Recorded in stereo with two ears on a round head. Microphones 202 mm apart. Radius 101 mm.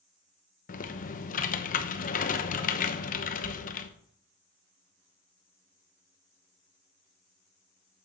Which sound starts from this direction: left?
Typing on a keyboard, at 0.7 s.